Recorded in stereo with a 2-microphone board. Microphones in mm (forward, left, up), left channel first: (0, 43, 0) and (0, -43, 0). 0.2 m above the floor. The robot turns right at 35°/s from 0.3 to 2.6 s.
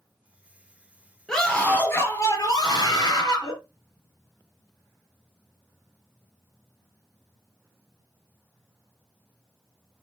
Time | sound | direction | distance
1.3 | a scream | 5° left | 3 m